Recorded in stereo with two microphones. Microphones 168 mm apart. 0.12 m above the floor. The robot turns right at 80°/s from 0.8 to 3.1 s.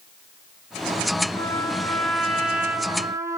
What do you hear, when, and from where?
1.3 s a trumpet: 20° left (ahead or behind), 1.4 m; by 3.4 s 20° right (ahead or behind), 1.4 m